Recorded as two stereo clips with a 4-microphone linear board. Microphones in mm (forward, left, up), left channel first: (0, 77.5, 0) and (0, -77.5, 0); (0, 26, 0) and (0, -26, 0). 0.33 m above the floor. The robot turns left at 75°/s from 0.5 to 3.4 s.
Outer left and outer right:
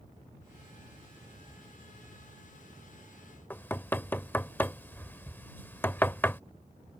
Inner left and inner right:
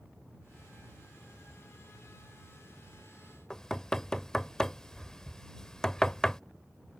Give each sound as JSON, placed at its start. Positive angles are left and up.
{"t": 3.5, "sound": "knocking", "side_deg": 15}